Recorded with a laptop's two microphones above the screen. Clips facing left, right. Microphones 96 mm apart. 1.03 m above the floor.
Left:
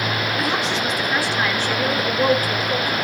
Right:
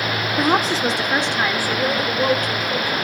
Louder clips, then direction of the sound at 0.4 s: Right 8 dB; 50° right (ahead or behind).